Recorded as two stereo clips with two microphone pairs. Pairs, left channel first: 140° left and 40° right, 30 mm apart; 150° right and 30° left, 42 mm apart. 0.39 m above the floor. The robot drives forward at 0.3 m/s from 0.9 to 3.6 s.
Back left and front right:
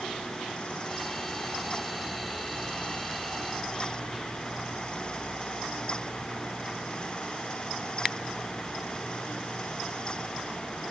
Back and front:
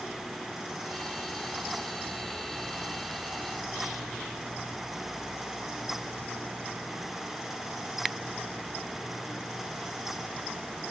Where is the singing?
No singing in this recording.